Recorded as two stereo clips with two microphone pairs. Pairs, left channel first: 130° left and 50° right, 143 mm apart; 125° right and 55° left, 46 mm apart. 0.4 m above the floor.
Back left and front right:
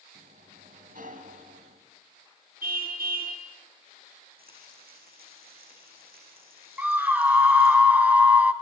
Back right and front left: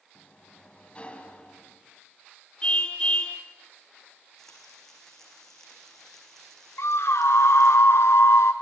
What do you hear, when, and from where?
0.1 s a sliding door: 60° right, 3 m
2.6 s a car horn: 60° right, 3 m
4.4 s frying: 45° right, 7 m
6.8 s a scream: 130° right, 2.5 m